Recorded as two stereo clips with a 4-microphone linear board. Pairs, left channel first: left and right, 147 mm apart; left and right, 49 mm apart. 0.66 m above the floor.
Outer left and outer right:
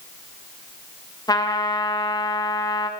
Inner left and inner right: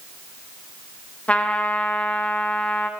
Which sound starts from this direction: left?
A trumpet, at 1.3 s.